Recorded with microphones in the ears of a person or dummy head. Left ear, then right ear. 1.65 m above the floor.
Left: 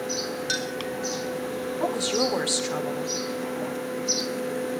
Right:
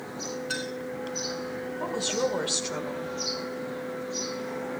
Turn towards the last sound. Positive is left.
turn(degrees=45)  # may be behind; listen again after turning